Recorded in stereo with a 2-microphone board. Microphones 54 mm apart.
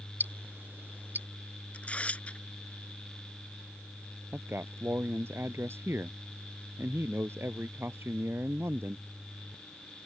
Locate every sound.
0.2 s ticking: 35° right (ahead or behind)
1.7 s tearing paper: 25° left (ahead or behind)
4.3 s a man speaking: 50° right (ahead or behind)